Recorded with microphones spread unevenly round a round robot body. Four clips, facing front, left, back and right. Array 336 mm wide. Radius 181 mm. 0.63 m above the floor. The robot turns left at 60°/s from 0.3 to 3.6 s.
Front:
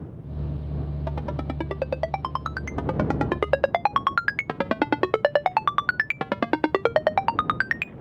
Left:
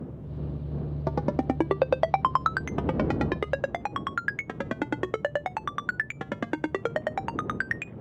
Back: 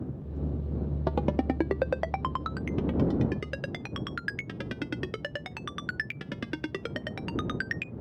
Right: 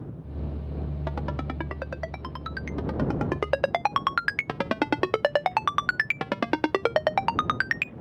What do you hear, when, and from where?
1.1 s a ringtone: 135° left; by 7.9 s 15° right